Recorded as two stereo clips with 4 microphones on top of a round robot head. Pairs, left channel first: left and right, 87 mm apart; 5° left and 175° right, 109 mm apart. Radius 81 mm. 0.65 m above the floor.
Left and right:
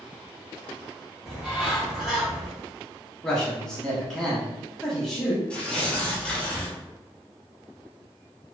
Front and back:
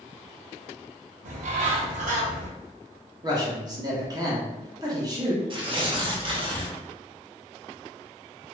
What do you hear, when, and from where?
1.2 s a bird: straight behind, 0.6 m
3.2 s a man speaking: 170° left, 1.1 m
5.5 s tearing paper: 165° left, 0.7 m